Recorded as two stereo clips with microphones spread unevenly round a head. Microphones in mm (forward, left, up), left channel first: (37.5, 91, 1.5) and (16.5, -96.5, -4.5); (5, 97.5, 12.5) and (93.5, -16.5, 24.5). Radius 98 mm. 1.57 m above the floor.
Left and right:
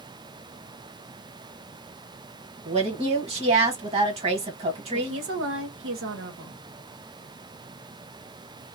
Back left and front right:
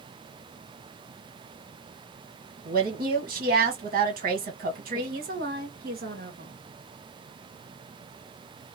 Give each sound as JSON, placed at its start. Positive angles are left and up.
{"t": 2.6, "sound": "a woman speaking", "azimuth_deg": -35, "distance_m": 1.4}
{"t": 4.9, "sound": "a woman speaking", "azimuth_deg": -85, "distance_m": 1.0}